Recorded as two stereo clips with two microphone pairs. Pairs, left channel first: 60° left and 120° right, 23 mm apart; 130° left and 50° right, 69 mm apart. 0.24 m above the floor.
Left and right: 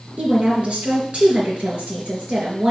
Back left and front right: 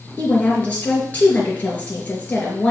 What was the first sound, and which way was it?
A woman speaking, 165° right.